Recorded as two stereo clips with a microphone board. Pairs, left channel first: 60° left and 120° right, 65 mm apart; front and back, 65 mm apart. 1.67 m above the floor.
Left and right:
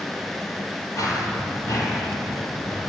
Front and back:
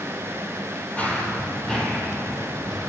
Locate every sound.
1.0 s running footsteps: 65° left, 3 m; by 2.9 s 90° left, 4 m